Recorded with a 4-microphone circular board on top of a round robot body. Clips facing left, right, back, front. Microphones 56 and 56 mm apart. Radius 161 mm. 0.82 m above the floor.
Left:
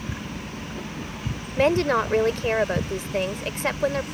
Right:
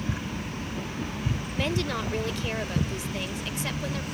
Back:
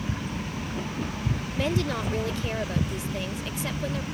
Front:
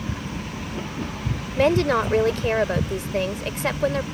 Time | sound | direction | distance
1.6 | a woman speaking | 40° left | ?